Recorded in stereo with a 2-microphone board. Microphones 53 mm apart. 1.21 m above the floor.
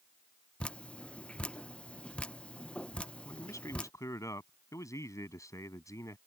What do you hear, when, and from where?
0.6 s dripping: 20° left (ahead or behind)
3.2 s a man speaking: 85° left